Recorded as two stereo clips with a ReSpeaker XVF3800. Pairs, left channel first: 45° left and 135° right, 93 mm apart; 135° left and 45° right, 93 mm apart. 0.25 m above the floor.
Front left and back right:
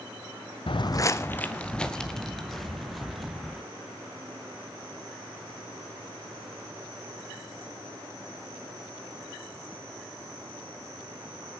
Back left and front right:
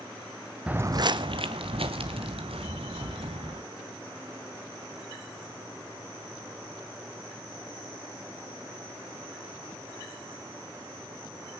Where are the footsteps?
35° left, 0.5 m; by 3.6 s 45° right, 3.5 m.